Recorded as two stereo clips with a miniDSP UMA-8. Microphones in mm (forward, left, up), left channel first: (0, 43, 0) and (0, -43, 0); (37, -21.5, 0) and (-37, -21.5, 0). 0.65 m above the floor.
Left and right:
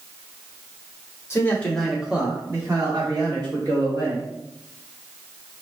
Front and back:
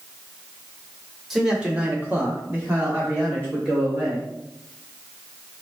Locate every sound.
1.3 s a man speaking: 100° left, 1.0 m; by 4.3 s 120° right, 2.5 m